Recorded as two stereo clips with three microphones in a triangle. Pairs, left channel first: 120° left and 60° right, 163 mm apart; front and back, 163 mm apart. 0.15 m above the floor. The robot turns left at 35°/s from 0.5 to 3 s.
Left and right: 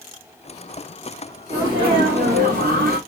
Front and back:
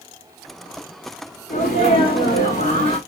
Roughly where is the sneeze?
Ahead.